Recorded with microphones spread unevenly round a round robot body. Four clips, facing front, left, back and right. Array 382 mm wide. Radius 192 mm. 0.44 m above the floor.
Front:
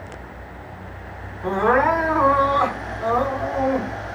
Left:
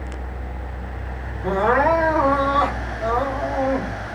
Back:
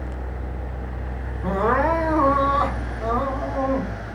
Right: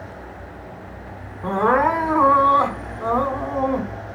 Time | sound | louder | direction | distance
1.4 | crying | even, front 2 dB | 85° right | 1.5 m